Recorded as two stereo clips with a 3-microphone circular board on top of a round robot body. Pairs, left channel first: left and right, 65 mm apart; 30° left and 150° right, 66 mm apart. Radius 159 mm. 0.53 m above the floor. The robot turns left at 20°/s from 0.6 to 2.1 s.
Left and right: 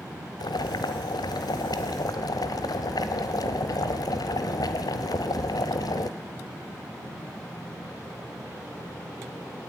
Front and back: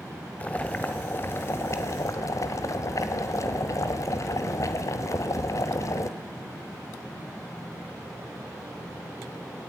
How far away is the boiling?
About 1.5 m.